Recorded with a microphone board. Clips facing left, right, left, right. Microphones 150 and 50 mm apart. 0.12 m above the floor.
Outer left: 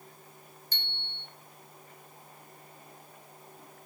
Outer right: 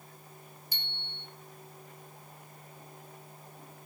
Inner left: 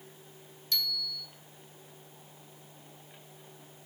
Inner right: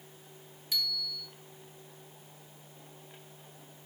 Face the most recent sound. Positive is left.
turn(degrees=-10)  # may be behind; listen again after turning